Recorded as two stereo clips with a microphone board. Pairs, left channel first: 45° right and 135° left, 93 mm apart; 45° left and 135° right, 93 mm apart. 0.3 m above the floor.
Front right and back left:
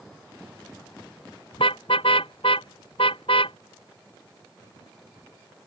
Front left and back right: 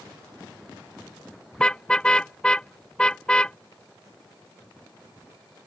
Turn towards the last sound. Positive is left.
turn(degrees=-35)